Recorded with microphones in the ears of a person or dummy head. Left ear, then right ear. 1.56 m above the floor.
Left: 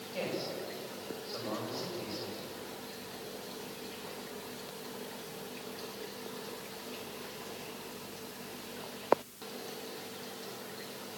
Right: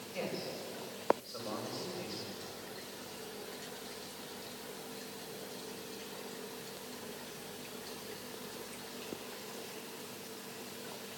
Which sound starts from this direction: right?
A man speaking, at 0.1 s.